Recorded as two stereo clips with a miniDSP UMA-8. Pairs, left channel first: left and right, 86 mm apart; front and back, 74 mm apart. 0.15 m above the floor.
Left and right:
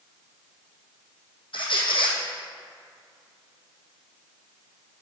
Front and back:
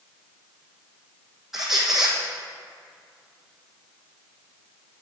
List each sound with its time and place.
1.5 s a squeak: 95° left, 1.4 m